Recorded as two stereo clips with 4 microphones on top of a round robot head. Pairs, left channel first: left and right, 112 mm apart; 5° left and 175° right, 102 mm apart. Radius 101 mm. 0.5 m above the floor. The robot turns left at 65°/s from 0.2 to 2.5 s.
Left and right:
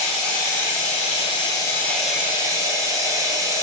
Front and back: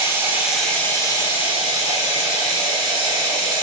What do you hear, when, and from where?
0.0 s running water: 120° left, 2.5 m; by 3.6 s 30° right, 2.5 m